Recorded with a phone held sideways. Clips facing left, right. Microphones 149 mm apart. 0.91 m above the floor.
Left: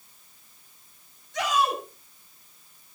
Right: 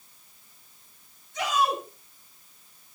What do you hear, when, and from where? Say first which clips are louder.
1.3 s a shout: left 1 dB; 85° left, 7.5 m